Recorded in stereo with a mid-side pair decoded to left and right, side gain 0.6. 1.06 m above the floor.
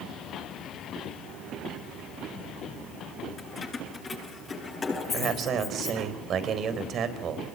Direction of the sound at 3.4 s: 30° left.